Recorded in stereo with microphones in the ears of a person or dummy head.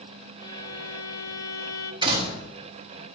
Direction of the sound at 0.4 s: 20° left (ahead or behind).